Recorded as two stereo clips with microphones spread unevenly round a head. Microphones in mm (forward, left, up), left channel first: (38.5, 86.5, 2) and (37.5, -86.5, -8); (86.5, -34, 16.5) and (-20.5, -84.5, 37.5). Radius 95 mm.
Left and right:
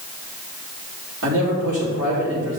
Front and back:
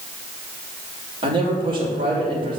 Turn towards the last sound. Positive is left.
turn(degrees=-110)